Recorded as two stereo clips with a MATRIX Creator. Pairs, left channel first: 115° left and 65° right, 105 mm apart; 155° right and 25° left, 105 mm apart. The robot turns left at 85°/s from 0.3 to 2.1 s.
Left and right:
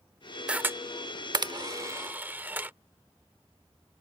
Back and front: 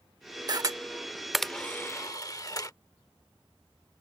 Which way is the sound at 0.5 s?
5° left.